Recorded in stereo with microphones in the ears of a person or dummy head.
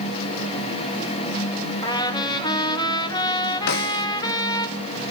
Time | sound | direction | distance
1.8 | a trumpet | 25° left (ahead or behind) | 1.7 m
3.7 | a snare drum | 55° left (ahead or behind) | 0.7 m